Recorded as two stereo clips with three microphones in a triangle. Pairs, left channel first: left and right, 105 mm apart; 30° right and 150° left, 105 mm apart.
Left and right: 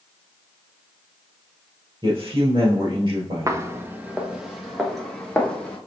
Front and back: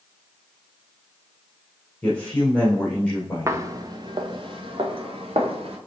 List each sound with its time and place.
2.0 s a man speaking: 105° right, 1.9 m
3.5 s footsteps: 150° right, 0.9 m; by 5.8 s 170° left, 2 m